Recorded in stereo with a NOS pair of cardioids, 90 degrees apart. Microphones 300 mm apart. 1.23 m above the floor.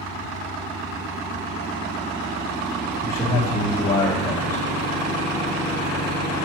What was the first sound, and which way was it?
A man speaking, 10° left.